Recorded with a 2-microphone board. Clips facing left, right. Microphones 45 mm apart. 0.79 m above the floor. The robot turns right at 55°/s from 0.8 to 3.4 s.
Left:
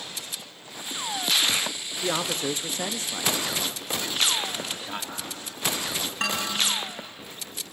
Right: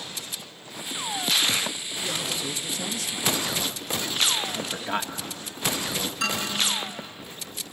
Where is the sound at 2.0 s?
85° left, 0.5 m; by 3.4 s 155° left, 0.5 m.